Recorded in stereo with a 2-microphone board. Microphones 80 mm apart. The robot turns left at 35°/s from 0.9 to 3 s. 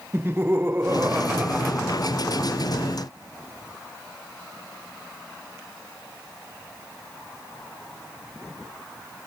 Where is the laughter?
155° right; by 2.6 s 145° left.